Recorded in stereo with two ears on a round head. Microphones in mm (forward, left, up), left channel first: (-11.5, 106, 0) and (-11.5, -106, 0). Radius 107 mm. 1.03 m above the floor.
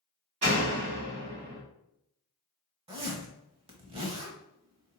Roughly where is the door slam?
Right.